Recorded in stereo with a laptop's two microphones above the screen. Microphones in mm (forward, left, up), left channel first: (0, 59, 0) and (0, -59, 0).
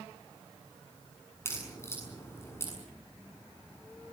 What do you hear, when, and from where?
1.4 s a crack: 20° left (ahead or behind), 7 m